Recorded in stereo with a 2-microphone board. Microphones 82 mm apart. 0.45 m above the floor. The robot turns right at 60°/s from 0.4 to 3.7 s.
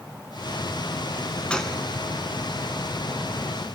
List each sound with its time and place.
1.5 s a gunshot: 15° left (ahead or behind), 0.9 m; by 1.8 s 5° right (ahead or behind), 0.9 m